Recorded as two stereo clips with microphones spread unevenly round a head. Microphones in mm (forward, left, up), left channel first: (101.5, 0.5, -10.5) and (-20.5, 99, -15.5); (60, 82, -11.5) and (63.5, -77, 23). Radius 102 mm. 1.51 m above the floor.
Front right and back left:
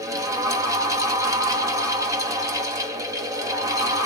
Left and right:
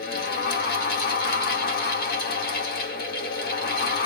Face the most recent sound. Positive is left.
turn(degrees=75)